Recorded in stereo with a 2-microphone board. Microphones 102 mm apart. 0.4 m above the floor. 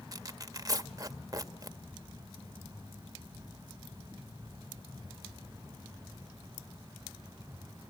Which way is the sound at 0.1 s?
35° right (ahead or behind).